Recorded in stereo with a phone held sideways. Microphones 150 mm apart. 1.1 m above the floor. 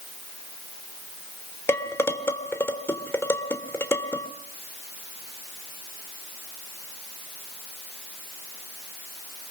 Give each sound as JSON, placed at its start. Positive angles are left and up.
{"t": 1.7, "sound": "dishes clattering", "side_deg": 15, "distance_m": 2.5}